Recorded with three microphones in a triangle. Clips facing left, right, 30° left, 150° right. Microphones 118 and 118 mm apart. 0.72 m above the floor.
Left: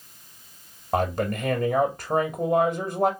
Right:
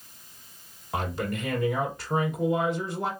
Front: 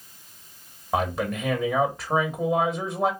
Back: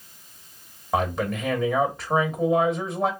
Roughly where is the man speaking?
Behind left.